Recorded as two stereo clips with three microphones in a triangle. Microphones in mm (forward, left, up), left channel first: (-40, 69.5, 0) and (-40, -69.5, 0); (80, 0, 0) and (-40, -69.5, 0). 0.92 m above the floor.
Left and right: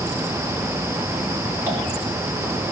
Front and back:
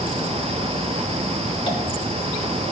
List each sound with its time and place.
1.7 s tapping: 15° right, 3 m